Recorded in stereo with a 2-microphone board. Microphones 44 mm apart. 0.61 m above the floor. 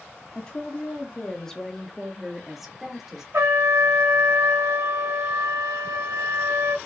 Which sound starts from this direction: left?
A woman speaking, at 0.3 s.